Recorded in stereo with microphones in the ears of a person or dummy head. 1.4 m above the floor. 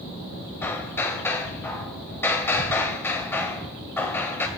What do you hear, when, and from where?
0.6 s hammering: 10° left (ahead or behind), 3 m